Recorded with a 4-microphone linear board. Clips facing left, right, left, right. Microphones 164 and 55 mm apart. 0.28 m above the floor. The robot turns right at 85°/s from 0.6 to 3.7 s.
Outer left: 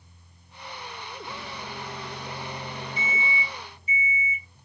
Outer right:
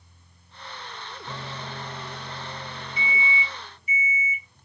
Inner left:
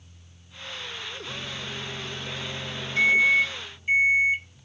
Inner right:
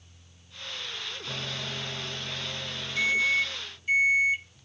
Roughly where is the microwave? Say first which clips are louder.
Outer right 4 dB, inner right 2 dB; right.